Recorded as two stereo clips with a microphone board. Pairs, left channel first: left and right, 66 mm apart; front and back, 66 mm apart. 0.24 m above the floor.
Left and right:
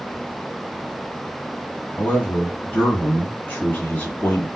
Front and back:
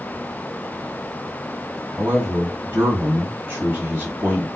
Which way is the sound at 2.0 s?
135° left.